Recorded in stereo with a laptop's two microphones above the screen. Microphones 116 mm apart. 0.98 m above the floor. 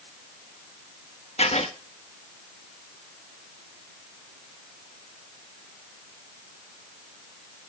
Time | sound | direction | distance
1.4 | writing | 60° left (ahead or behind) | 1.3 m